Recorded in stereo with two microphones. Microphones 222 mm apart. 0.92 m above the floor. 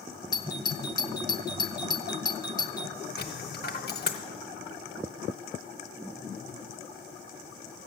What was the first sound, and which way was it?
A doorbell, 20° left (ahead or behind).